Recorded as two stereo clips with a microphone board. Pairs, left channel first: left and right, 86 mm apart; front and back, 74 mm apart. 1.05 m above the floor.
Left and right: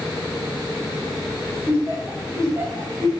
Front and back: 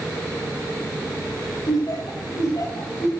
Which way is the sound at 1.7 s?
25° right.